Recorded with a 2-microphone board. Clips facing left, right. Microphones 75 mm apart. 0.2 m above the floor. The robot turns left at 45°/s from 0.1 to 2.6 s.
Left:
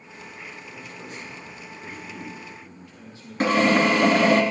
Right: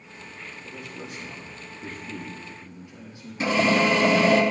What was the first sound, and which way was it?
A man speaking, 70° right.